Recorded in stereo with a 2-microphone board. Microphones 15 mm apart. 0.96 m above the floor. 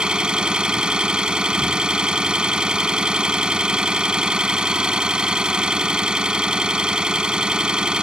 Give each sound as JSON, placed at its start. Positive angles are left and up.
{"t": 0.0, "sound": "an engine running", "side_deg": -80}